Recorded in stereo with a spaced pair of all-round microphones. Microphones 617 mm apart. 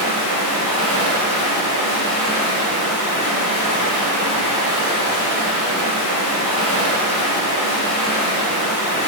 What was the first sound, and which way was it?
Running water, 15° left (ahead or behind).